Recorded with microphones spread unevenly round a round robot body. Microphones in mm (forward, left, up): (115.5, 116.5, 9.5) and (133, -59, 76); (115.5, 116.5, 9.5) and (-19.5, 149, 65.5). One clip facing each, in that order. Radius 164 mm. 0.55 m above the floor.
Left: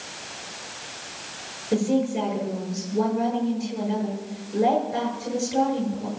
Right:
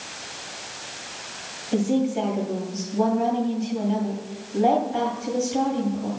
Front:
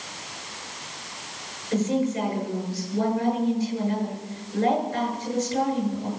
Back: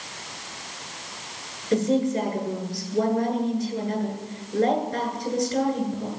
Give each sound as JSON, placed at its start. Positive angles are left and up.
{"t": 1.7, "sound": "a woman speaking", "azimuth_deg": 130, "distance_m": 9.0}